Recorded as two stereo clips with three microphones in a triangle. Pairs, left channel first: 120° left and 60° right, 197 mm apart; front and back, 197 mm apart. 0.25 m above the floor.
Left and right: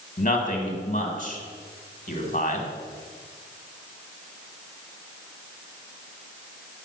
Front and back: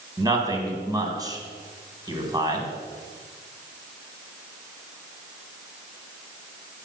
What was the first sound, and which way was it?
A man speaking, 120° left.